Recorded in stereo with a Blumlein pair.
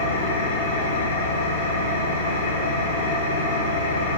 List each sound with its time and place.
0.0 s an engine running: 70° left, 1.5 m